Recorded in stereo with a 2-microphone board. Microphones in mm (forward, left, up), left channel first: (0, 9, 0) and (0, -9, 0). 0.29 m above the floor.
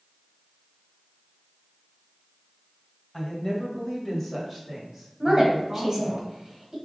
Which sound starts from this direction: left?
A woman speaking, at 3.1 s.